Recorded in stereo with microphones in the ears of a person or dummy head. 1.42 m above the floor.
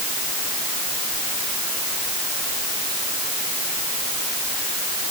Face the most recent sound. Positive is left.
No sound to turn to.